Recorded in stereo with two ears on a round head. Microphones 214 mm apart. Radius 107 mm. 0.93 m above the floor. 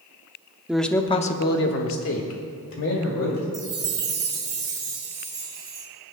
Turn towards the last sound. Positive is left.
turn(degrees=-15)  # may be behind; listen again after turning